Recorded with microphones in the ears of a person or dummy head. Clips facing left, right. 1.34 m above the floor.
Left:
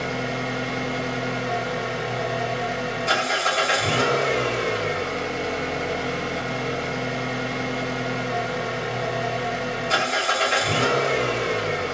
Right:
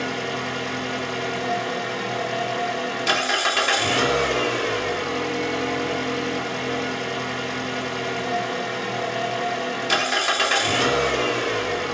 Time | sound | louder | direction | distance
0.0 | an engine running | even | 75° right (ahead or behind) | 2.5 m